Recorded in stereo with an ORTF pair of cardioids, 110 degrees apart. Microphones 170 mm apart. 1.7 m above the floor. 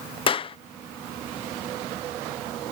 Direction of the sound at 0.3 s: 35° left.